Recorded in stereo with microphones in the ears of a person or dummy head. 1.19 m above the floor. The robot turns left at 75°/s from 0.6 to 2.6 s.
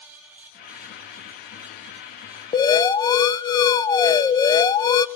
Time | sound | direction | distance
2.5 | an alarm | 25° left (ahead or behind) | 0.7 m